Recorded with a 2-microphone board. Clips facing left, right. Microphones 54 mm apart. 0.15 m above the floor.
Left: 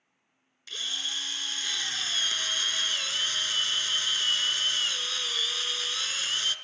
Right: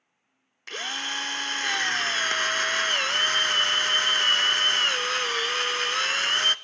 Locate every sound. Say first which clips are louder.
0.7 s a drill: right 5 dB; 50° right (ahead or behind), 0.7 m